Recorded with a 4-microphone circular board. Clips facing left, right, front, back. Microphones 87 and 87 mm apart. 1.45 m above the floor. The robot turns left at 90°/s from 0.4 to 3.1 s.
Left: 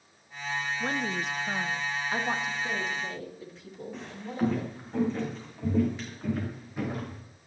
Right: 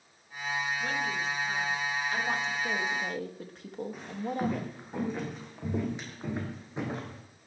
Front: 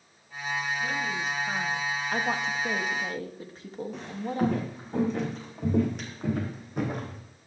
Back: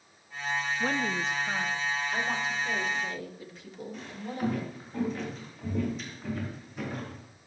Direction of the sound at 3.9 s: 10° right.